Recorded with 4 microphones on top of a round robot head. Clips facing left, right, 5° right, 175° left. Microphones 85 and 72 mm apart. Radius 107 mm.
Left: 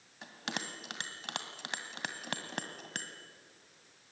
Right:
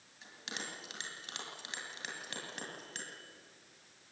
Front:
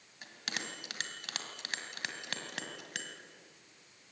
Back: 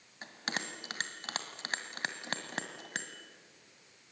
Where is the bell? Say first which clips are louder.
Left 5 dB, back 3 dB; 120° left, 2 m.